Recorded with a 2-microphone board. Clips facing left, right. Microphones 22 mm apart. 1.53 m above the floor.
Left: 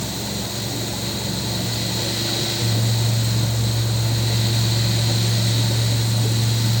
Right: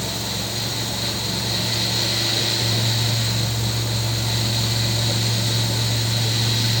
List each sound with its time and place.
Only background noise.